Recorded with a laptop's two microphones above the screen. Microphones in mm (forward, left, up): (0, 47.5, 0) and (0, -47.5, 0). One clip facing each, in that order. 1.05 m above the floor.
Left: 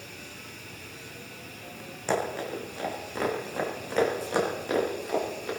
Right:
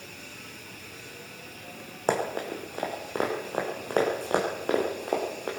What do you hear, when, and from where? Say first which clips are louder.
2.1 s running footsteps: right 1 dB; 50° right (ahead or behind), 4 m; by 5.5 s 60° right (ahead or behind), 5.5 m